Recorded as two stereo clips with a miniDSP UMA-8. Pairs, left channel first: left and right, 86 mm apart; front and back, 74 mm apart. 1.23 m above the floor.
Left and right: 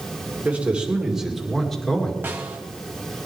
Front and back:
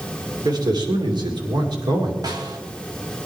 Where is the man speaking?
160° right, 3 m; by 2.1 s 170° left, 3 m.